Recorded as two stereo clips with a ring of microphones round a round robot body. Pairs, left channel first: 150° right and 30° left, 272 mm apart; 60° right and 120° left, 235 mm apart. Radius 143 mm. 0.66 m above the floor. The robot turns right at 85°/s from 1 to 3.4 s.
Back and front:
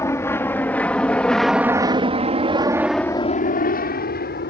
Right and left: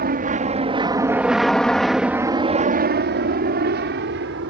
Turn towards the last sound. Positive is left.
turn(degrees=160)